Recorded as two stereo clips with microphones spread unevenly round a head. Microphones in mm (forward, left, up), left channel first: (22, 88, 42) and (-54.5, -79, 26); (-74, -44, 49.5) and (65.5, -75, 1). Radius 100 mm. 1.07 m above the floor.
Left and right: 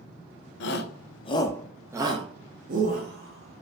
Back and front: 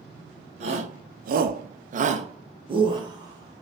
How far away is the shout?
About 0.6 m.